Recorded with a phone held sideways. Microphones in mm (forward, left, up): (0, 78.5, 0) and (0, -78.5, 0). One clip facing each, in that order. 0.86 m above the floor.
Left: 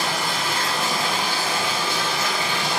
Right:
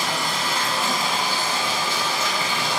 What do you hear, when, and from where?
0.0 s running water: 70° left (ahead or behind), 1.4 m